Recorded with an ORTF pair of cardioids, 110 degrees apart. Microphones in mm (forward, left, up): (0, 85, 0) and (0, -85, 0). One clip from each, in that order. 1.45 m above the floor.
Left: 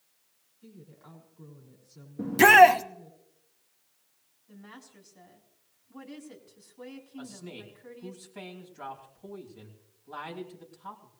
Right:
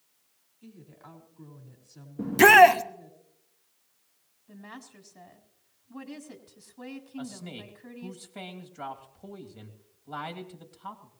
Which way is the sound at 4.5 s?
35° right.